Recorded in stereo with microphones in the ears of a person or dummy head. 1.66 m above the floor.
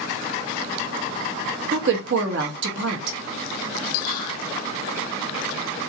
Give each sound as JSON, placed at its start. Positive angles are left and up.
{"t": 1.7, "sound": "a woman speaking", "side_deg": -70, "distance_m": 1.4}
{"t": 4.0, "sound": "whispering", "side_deg": 50, "distance_m": 2.5}